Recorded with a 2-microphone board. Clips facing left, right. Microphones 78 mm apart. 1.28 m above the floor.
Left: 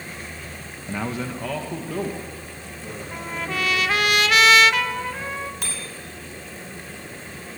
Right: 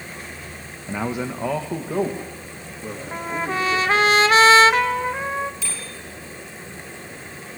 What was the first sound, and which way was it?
A man speaking, 5° right (ahead or behind).